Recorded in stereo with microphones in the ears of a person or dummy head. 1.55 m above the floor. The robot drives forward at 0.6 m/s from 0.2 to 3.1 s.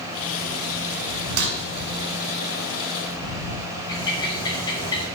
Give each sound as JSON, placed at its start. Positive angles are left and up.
{"t": 1.4, "sound": "breaking glass", "side_deg": -60, "distance_m": 5.0}
{"t": 3.9, "sound": "a bird", "side_deg": 20, "distance_m": 5.0}